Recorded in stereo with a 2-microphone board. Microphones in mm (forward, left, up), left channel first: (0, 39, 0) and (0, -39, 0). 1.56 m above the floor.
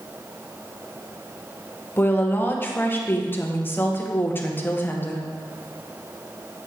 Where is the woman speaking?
25° left (ahead or behind), 1.1 m.